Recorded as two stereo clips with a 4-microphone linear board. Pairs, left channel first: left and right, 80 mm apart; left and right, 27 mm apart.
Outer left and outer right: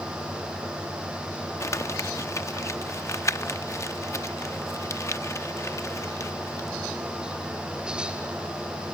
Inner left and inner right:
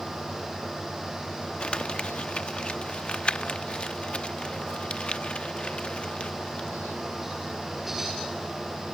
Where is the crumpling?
35° left (ahead or behind).